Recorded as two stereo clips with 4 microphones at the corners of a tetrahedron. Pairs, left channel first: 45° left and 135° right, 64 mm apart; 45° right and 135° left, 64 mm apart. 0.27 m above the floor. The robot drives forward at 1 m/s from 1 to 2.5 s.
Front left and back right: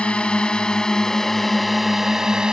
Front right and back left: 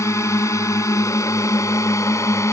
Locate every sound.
0.0 s a drone: 25° right; by 2.5 s 60° right